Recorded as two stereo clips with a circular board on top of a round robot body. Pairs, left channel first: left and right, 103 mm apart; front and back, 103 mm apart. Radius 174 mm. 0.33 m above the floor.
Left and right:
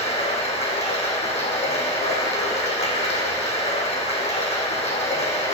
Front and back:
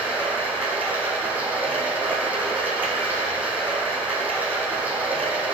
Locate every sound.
0.0 s running water: 105° left, 2 m